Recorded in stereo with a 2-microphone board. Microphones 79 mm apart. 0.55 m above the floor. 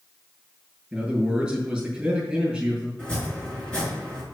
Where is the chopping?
10° left (ahead or behind), 5 m.